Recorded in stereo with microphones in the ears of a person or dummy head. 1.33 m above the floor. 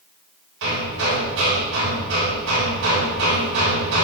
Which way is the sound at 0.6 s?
65° right (ahead or behind).